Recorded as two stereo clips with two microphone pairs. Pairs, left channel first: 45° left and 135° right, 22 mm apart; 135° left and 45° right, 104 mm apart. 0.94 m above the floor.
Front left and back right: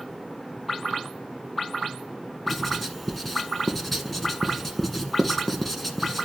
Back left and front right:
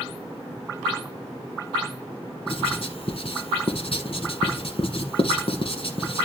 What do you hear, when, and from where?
2.5 s writing: 125° left, 1.6 m